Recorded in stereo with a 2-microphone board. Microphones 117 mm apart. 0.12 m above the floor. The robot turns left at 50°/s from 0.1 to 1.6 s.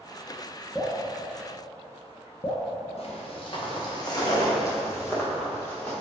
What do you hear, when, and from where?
0.8 s dripping: 5° left (ahead or behind), 2 m; by 2.7 s 45° left (ahead or behind), 2 m
3.0 s footsteps: 60° left (ahead or behind), 2.5 m; by 5.9 s 15° left (ahead or behind), 4.5 m